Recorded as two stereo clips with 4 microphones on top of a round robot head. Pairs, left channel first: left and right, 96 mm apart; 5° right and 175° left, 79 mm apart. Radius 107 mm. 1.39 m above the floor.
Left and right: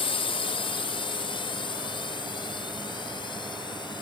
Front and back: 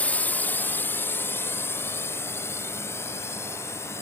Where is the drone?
65° left; by 4.0 s 50° left.